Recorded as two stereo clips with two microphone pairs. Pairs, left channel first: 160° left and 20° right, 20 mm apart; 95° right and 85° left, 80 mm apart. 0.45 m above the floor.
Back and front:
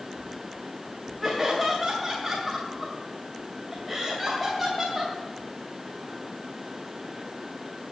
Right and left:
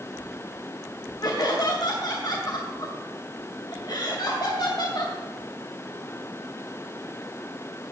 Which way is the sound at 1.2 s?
110° right.